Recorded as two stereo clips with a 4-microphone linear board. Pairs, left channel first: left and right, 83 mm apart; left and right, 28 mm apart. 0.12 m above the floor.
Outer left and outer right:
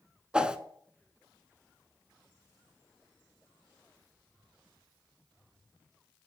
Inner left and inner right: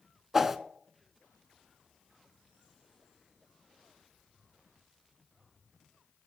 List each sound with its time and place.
0.3 s a whoosh: 10° right (ahead or behind), 0.5 m